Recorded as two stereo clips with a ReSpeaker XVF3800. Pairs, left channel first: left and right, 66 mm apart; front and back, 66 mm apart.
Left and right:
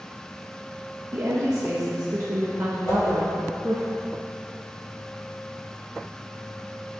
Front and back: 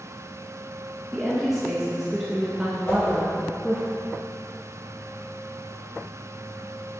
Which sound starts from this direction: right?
A woman speaking, at 1.1 s.